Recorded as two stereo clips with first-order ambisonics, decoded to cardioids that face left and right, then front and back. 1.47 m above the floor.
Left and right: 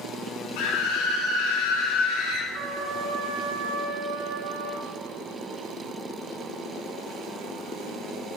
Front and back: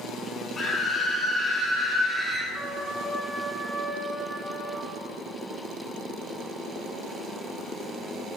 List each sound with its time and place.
0.6 s a scream: 75° left, 2.5 m; by 2.4 s 100° left, 3 m
2.5 s a trumpet: 85° right, 3.5 m